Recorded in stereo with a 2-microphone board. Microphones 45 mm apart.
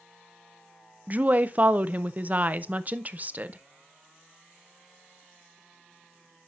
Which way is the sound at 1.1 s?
40° right (ahead or behind).